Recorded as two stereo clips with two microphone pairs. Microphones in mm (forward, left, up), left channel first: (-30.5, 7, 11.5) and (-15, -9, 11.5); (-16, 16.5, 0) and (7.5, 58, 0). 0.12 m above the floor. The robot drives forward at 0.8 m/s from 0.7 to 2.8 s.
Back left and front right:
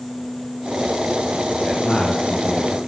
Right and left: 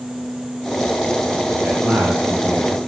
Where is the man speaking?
85° left, 3.5 m; by 2.8 s 100° left, 3.5 m.